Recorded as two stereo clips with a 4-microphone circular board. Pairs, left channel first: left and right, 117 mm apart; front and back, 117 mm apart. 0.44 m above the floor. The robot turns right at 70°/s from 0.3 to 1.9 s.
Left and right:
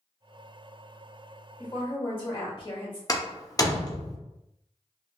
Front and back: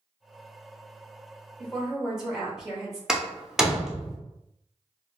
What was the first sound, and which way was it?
A woman speaking, 75° left.